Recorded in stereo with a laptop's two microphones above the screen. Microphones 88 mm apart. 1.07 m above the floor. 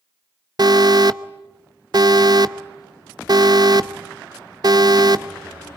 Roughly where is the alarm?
Right.